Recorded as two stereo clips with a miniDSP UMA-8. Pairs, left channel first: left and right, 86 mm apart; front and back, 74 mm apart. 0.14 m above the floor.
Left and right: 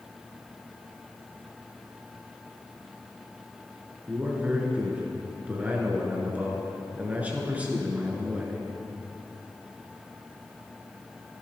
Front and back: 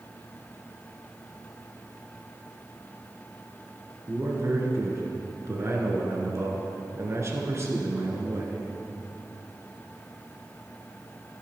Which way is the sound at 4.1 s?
155° right.